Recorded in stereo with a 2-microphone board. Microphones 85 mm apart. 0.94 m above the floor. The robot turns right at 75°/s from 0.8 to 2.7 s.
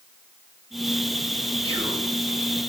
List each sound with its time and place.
1.6 s whispering: 85° right, 3.5 m; by 2.1 s 55° right, 3.5 m